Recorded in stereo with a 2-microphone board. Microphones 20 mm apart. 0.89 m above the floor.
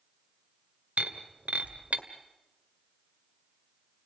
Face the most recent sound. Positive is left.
turn(degrees=-85)